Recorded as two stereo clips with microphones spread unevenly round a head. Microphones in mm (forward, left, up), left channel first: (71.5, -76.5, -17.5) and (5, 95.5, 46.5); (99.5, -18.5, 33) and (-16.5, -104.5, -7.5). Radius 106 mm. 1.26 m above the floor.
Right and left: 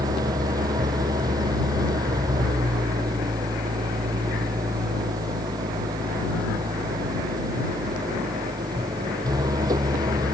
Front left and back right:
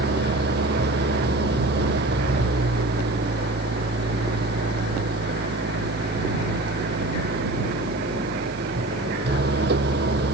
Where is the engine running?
175° right.